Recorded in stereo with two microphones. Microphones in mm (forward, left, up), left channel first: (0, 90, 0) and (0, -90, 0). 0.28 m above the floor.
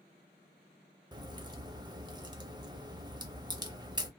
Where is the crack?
25° right (ahead or behind), 0.7 m.